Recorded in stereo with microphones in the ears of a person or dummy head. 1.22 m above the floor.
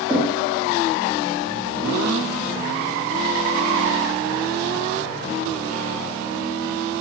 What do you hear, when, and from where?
0.1 s knocking: 10° right (ahead or behind), 2 m